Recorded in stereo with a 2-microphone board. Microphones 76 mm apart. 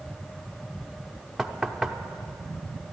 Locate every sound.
1.4 s knocking: 5° right (ahead or behind), 0.7 m